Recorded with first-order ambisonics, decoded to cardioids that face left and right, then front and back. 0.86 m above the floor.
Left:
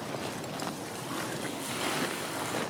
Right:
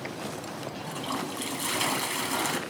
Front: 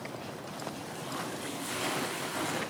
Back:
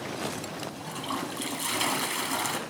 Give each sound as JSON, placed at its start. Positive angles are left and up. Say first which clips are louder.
{"t": 0.8, "sound": "a toilet flushing", "louder": "right 3 dB, back 7 dB", "azimuth_deg": -140, "distance_m": 1.8}